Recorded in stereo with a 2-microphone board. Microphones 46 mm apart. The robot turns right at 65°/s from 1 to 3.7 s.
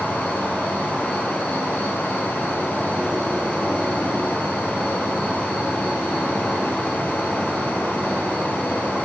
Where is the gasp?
No gasp in this recording.